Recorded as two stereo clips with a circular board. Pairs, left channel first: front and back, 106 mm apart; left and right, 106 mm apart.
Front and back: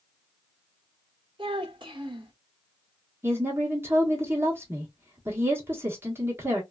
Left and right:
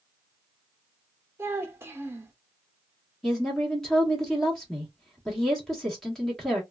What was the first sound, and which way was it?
A child speaking, 155° right.